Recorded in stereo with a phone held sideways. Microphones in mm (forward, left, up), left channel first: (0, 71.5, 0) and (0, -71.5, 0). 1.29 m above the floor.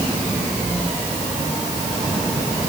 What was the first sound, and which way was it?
Only background noise.